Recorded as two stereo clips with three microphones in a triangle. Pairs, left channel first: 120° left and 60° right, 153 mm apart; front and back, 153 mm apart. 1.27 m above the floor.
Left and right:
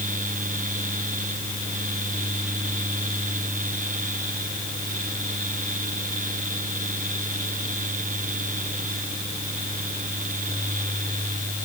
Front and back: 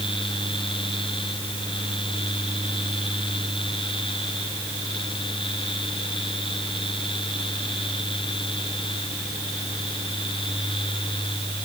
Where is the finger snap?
I don't hear a finger snap.